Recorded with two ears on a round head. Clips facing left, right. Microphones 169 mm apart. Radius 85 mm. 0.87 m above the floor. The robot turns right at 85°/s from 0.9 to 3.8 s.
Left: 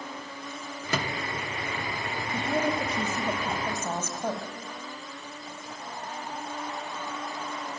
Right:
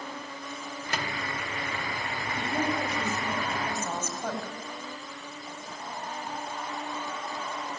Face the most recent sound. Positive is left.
turn(degrees=165)